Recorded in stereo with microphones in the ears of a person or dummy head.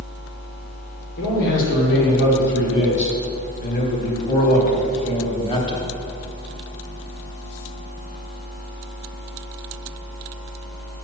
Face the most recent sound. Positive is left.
turn(degrees=20)  # may be behind; listen again after turning